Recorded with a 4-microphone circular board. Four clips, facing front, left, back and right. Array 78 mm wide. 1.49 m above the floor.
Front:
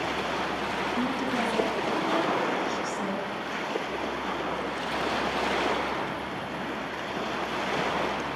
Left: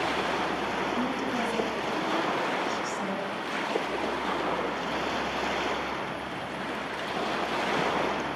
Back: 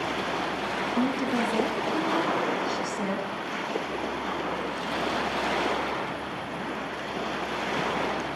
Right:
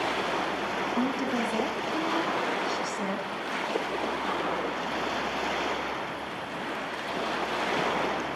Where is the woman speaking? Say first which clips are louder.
Right 1 dB, back 4 dB; 145° right, 2.5 m.